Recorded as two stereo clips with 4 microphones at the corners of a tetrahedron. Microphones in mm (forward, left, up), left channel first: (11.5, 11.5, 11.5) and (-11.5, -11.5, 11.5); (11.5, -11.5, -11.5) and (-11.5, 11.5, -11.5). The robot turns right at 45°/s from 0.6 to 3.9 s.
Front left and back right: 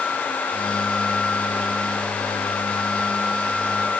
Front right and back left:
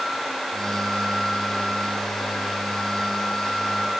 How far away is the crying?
I don't hear crying.